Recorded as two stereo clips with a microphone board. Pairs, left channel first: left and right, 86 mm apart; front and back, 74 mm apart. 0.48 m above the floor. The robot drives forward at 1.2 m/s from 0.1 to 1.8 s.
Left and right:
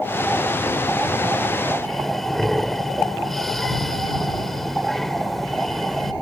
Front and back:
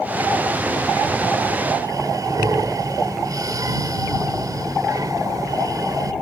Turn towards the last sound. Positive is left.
turn(degrees=175)